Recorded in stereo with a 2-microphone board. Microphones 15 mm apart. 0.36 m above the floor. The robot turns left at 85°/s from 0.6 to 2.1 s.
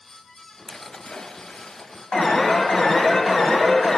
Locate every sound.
0.7 s a splash: 155° left, 0.5 m; by 2.1 s 35° left, 0.5 m
2.1 s an alarm: 50° left (ahead or behind), 1.5 m